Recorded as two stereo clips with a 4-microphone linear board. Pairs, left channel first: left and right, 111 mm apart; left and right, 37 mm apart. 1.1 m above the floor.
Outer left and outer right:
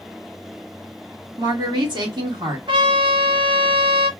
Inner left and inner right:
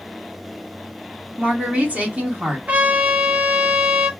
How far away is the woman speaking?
About 1.8 m.